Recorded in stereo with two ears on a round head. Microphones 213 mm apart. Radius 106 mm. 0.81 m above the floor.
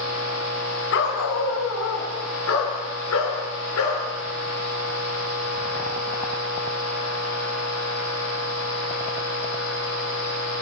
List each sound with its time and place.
0.9 s a dog barking: 55° left (ahead or behind), 3.5 m; by 4.0 s 70° left (ahead or behind), 6.5 m